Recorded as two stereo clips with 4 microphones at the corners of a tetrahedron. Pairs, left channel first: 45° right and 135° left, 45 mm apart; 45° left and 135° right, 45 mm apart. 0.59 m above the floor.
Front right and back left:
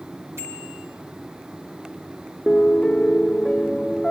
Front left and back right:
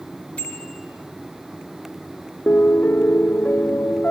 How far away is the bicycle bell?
About 6.5 m.